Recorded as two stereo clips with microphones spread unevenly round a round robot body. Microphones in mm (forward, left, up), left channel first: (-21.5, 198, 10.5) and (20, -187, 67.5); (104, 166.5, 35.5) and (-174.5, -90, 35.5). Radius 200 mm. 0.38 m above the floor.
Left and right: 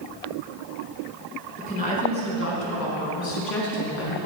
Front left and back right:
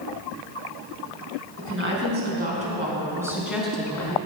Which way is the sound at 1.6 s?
170° left.